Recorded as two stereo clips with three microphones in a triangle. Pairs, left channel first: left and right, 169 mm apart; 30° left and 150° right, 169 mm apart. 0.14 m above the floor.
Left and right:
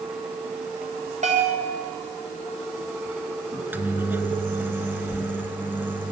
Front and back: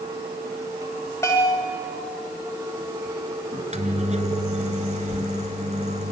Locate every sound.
1.2 s a bell: 45° right, 6.5 m
3.5 s a microwave: 165° right, 1.8 m